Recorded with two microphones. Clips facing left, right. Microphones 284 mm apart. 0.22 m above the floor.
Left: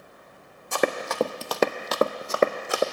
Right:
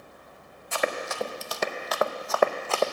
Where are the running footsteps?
55° left (ahead or behind), 0.8 m; by 2.8 s 15° left (ahead or behind), 0.8 m.